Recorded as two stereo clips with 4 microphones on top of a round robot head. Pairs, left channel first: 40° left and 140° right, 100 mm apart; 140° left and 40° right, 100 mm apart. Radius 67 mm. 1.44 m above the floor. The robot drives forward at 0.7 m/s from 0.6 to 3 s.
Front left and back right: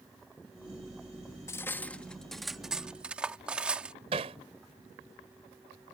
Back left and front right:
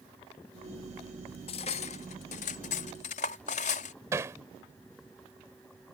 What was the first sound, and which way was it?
Cutlery clinking, 105° left.